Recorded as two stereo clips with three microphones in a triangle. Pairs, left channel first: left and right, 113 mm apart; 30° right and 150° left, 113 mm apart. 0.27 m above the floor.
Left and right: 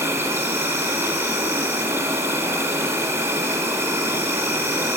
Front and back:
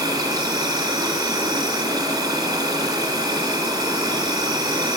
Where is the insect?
155° right, 6 m.